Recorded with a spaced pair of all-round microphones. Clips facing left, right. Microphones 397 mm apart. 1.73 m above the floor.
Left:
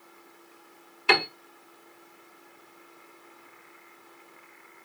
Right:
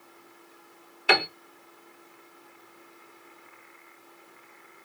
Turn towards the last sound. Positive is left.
turn(degrees=10)  # may be behind; listen again after turning